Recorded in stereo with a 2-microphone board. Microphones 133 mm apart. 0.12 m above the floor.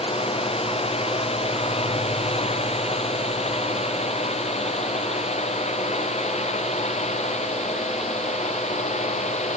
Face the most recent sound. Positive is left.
turn(degrees=55)  # may be behind; listen again after turning